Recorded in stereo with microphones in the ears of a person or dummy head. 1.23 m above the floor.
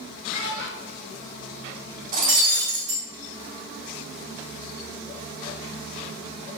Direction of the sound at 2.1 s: 50° right (ahead or behind).